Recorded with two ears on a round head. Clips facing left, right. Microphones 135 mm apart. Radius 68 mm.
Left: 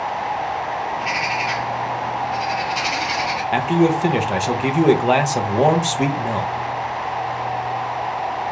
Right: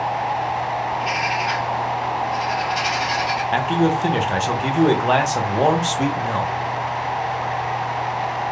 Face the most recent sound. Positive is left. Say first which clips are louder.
# left 3 dB
turn(degrees=10)  # may be behind; listen again after turning